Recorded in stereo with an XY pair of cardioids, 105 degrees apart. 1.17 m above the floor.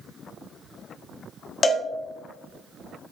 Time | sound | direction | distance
1.6 | a cowbell | 30° left | 0.6 m